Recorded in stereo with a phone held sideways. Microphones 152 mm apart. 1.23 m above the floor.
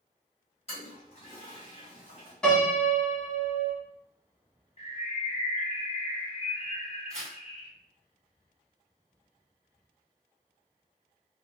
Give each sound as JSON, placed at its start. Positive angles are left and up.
{"t": 0.7, "sound": "a toilet flushing", "side_deg": 40, "distance_m": 1.7}
{"t": 2.4, "sound": "a piano", "side_deg": 5, "distance_m": 1.3}
{"t": 4.8, "sound": "a bird", "side_deg": 40, "distance_m": 0.7}
{"t": 7.1, "sound": "tearing paper", "side_deg": 5, "distance_m": 1.7}